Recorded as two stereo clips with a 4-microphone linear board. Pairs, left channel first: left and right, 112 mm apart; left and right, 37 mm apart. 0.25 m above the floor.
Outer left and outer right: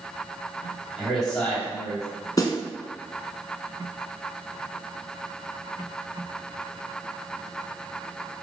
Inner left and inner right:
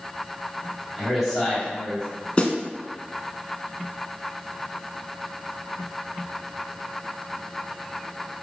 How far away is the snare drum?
About 0.6 m.